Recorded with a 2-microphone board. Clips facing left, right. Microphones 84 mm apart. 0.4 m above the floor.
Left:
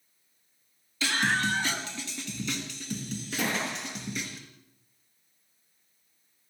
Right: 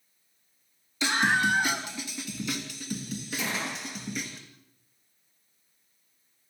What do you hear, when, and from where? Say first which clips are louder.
1.0 s a scream: right 3 dB; 20° right (ahead or behind), 2 m; by 4.4 s centre (ahead or behind), 5.5 m
3.4 s a gunshot: left 4 dB; 60° left (ahead or behind), 6 m